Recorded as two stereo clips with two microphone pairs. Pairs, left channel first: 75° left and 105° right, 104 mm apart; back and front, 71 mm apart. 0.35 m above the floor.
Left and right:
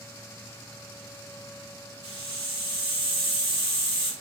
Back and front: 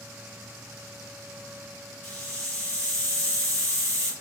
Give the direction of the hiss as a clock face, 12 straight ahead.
4 o'clock.